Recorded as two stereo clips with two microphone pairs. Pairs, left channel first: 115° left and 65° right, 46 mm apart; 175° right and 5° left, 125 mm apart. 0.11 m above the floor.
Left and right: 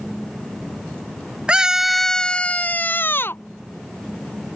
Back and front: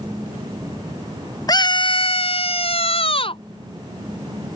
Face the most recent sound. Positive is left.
turn(degrees=145)